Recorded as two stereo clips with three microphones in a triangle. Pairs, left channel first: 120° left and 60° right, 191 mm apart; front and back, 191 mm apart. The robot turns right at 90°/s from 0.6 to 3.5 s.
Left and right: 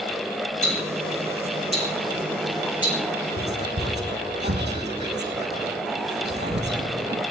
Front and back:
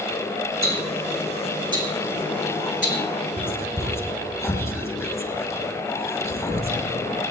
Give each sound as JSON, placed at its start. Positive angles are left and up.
{"t": 0.6, "sound": "ticking", "azimuth_deg": 145, "distance_m": 5.0}
{"t": 3.4, "sound": "whispering", "azimuth_deg": -85, "distance_m": 3.0}